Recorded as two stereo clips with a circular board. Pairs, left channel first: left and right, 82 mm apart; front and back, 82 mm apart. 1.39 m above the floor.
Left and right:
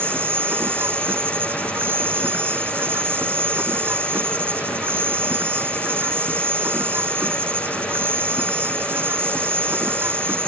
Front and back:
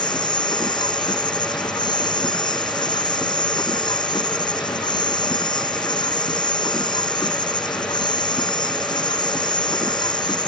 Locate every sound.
0.0 s an insect: 25° right